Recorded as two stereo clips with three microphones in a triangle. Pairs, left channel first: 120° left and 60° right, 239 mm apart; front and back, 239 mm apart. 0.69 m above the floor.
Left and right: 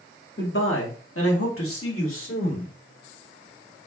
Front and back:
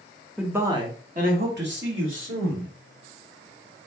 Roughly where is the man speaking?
Left.